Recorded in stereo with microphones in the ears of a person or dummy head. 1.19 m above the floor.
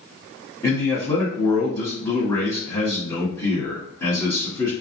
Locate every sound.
0.6 s a man speaking: 15° left (ahead or behind), 1.6 m